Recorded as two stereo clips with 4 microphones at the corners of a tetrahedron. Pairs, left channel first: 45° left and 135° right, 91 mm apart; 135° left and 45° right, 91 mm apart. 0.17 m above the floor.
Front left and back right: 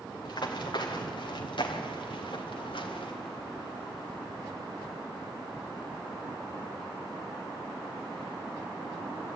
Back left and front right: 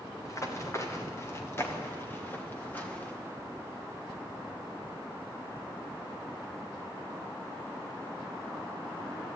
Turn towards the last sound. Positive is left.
turn(degrees=60)